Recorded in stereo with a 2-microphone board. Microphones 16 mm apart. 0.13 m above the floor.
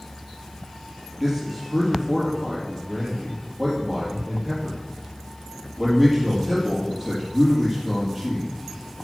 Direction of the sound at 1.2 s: 20° right (ahead or behind).